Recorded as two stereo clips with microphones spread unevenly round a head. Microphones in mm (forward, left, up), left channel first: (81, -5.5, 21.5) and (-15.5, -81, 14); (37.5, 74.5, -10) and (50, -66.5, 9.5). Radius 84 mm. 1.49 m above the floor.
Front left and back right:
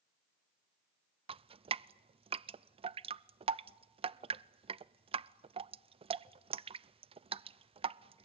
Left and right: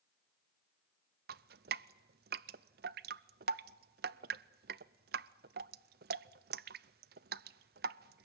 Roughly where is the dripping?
Right.